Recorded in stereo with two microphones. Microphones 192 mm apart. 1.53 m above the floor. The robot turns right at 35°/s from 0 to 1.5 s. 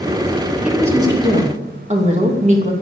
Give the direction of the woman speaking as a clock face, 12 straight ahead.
6 o'clock.